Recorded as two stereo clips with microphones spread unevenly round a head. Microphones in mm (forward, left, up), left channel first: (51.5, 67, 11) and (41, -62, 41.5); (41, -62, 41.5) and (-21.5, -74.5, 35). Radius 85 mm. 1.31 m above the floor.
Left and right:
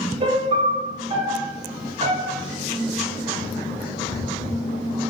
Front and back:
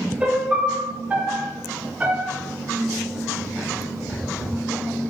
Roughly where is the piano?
Right.